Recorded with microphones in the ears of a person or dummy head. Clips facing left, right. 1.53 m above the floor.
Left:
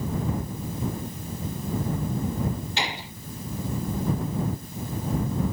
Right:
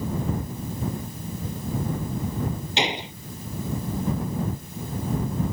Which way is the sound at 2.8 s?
20° right (ahead or behind).